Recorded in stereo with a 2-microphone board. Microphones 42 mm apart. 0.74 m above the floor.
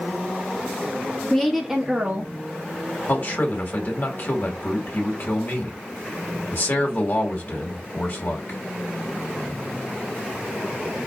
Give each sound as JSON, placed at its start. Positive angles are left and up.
{"t": 1.3, "sound": "a woman speaking", "side_deg": 10, "distance_m": 1.0}
{"t": 3.1, "sound": "a man speaking", "side_deg": 50, "distance_m": 1.5}